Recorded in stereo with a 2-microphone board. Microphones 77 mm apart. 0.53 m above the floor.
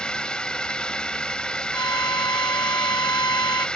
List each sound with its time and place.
0.0 s a drone: 10° left (ahead or behind)
1.7 s a violin: 65° left (ahead or behind)